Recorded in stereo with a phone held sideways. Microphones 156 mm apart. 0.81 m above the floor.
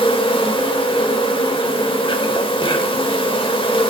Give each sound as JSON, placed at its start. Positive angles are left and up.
{"t": 0.0, "sound": "an insect", "side_deg": 35, "distance_m": 1.4}